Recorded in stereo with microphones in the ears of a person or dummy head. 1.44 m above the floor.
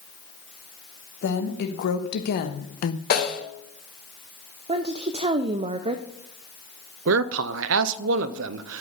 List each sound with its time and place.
1.2 s a woman speaking: 70° left (ahead or behind), 1.8 m; by 3.0 s 45° left (ahead or behind), 0.7 m
3.1 s a snare drum: 65° left (ahead or behind), 3 m
4.7 s a woman speaking: 20° right (ahead or behind), 0.5 m
7.1 s a man speaking: 65° right (ahead or behind), 0.5 m